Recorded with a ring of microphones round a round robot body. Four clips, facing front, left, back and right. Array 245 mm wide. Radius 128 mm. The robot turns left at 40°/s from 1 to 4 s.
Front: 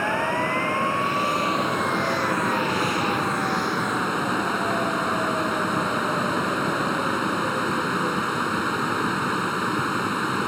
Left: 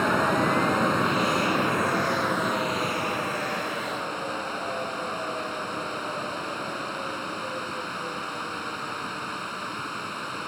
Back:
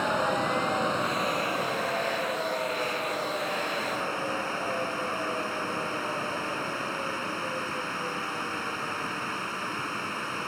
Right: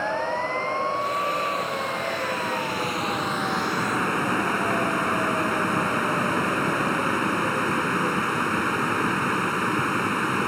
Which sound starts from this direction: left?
Running water, at 0.0 s.